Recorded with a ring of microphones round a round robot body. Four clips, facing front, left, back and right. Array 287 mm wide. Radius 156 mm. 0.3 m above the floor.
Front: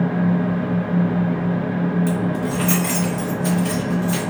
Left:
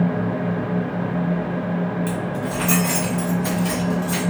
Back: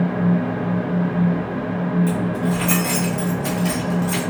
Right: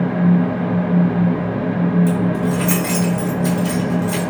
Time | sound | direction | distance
2.1 | keys jangling | 20° right | 1.2 m